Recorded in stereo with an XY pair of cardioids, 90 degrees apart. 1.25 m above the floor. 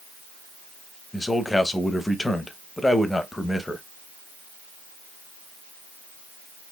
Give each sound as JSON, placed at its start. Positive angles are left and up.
{"t": 1.1, "sound": "a man speaking", "azimuth_deg": 20, "distance_m": 0.8}